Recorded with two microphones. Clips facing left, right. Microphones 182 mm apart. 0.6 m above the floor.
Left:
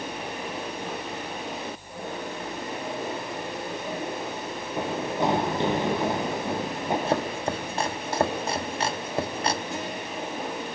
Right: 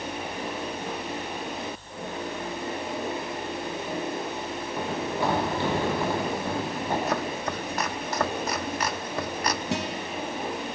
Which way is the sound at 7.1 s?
30° left (ahead or behind).